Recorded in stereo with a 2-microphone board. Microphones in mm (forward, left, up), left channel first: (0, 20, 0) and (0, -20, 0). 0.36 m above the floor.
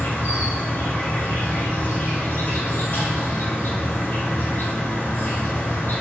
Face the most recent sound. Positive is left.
turn(degrees=65)  # may be behind; listen again after turning